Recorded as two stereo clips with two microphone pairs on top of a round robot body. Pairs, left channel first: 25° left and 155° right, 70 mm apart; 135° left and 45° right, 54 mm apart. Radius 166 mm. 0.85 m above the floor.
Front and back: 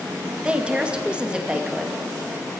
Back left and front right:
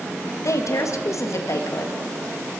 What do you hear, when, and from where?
0.4 s a woman speaking: 125° left, 2.0 m